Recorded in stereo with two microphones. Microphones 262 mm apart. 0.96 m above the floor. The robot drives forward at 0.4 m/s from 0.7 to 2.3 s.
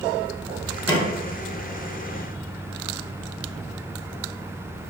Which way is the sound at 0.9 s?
25° left (ahead or behind).